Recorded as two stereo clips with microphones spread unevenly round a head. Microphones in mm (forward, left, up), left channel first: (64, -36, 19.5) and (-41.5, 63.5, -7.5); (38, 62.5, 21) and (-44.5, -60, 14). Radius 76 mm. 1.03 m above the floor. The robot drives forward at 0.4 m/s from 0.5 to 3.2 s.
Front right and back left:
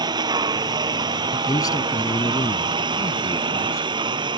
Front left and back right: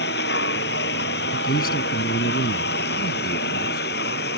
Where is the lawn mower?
75° left.